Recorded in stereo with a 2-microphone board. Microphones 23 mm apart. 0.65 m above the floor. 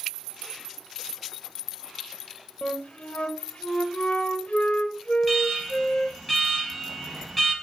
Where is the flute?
65° left (ahead or behind), 1.2 m.